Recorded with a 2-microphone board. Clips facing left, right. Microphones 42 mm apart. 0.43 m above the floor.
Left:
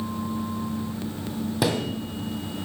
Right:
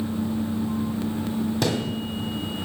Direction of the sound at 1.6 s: 10° left (ahead or behind).